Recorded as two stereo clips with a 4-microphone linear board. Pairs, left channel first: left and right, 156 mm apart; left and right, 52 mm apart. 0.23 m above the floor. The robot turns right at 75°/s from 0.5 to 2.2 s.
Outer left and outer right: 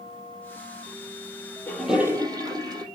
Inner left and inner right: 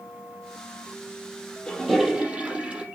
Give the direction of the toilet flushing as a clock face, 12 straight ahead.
7 o'clock.